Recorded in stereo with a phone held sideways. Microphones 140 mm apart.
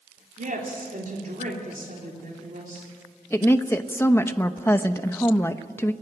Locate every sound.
0.4 s a woman speaking: 80° right, 3 m
3.3 s a woman speaking: 15° left (ahead or behind), 0.9 m